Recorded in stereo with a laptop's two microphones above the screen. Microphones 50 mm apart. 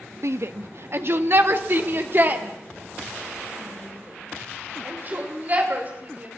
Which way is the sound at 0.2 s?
65° right (ahead or behind).